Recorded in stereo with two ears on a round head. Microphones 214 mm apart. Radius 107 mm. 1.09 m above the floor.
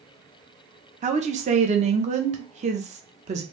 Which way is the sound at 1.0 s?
30° right (ahead or behind).